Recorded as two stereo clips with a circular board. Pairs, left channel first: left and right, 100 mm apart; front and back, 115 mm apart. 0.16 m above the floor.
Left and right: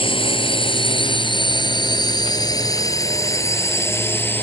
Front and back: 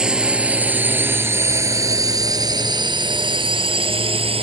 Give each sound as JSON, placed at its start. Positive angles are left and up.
{"t": 0.0, "sound": "a drone", "azimuth_deg": 100}